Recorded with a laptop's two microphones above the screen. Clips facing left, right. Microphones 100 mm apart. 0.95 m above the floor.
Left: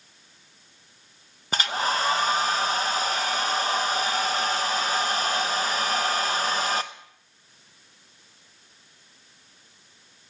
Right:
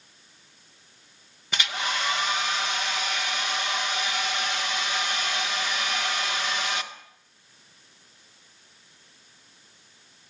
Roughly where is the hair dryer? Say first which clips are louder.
Left 4 dB; left.